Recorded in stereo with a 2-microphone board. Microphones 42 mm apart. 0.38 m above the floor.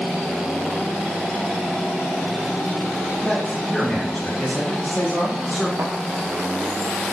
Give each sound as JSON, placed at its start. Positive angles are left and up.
{"t": 3.2, "sound": "a man speaking", "side_deg": 15, "distance_m": 3.5}
{"t": 5.8, "sound": "a thud", "side_deg": -70, "distance_m": 1.4}